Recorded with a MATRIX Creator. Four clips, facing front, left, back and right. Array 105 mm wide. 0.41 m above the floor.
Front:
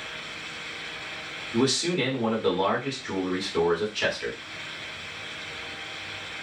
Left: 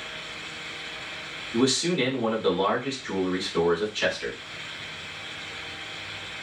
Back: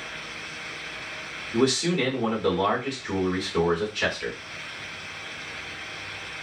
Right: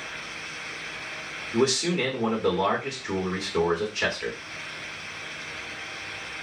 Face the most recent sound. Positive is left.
turn(degrees=-90)